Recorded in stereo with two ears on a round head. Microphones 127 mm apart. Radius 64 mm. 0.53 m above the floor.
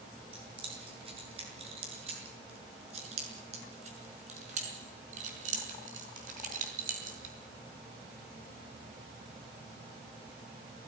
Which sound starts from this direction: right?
Keys jangling, at 0.3 s.